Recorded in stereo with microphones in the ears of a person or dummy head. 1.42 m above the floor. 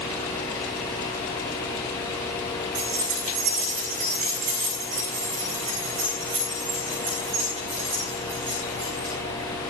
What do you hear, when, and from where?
2.8 s keys jangling: 45° right (ahead or behind), 7.5 m; by 9.1 s 20° right (ahead or behind), 12.5 m